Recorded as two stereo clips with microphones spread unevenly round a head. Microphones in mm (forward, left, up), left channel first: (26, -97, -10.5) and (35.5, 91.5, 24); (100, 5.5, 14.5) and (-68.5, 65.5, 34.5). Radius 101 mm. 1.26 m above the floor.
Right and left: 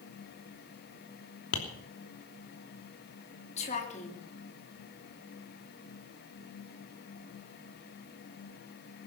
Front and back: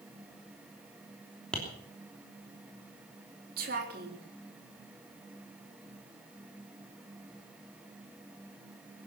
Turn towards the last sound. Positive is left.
turn(degrees=-150)